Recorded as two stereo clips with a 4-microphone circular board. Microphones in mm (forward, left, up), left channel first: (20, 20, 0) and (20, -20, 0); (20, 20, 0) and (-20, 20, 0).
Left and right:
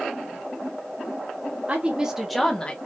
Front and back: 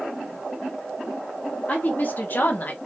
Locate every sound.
1.7 s a woman speaking: 40° right, 1.6 m; by 2.8 s 35° left, 1.4 m